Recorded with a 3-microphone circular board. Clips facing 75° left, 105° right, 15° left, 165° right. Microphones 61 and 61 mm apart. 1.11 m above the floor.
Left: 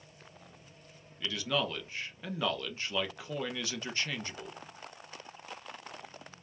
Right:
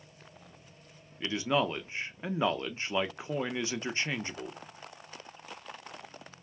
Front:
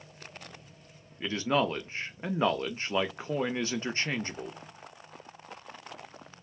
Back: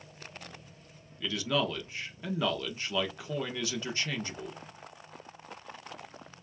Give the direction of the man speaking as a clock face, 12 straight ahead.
1 o'clock.